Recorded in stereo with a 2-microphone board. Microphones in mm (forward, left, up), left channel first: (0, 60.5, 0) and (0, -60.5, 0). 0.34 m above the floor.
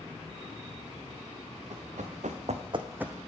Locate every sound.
1.7 s running footsteps: 75° right (ahead or behind), 2.0 m; by 3.2 s centre (ahead or behind), 0.9 m